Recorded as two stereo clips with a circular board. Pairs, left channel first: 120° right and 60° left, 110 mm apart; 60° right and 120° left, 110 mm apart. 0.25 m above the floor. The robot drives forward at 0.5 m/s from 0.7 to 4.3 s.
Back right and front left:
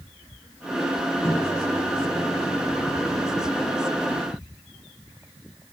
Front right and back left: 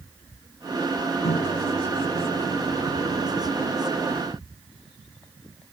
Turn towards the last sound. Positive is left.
turn(degrees=-65)